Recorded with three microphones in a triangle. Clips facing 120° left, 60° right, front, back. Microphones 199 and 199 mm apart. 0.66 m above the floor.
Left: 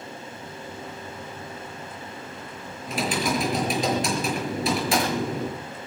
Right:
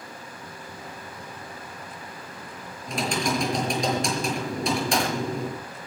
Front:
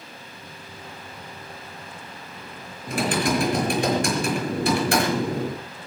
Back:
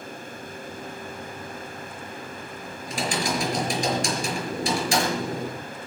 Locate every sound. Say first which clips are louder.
2.9 s typing on a keyboard: left 1 dB, front 5 dB; 35° left, 5.5 m